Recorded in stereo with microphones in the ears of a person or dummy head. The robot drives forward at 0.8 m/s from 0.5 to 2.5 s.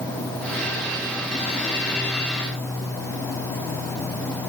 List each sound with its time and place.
Only background noise.